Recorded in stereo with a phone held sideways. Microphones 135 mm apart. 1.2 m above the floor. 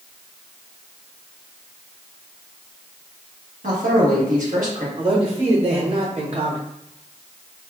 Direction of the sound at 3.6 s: 75° right (ahead or behind).